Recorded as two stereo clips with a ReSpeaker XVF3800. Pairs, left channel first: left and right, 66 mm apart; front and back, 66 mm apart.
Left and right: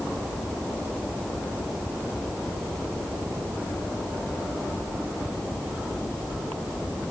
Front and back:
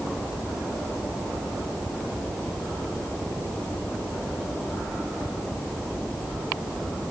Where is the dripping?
No dripping in this recording.